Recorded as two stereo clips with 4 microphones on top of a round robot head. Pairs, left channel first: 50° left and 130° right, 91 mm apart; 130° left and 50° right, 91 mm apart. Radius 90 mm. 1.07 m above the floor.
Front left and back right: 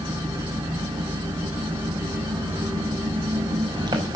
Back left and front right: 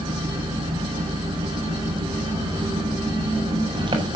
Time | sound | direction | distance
0.0 | an engine running | 85° right | 7 m